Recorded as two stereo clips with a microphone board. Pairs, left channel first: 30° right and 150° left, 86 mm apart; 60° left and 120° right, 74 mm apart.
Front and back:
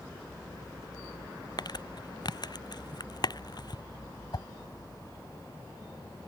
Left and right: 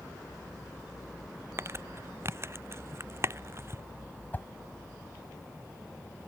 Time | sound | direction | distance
1.6 | crumpling | 65° right | ?
4.3 | a whoosh | 5° right | ?